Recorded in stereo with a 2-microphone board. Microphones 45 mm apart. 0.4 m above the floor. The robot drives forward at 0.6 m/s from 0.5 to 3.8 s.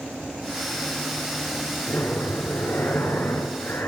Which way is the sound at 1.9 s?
70° left (ahead or behind).